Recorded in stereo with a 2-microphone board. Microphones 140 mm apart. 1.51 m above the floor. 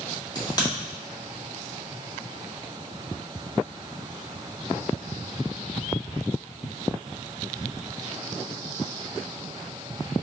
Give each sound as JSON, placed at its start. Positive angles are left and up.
{"t": 0.3, "sound": "a crack", "side_deg": 30, "distance_m": 1.9}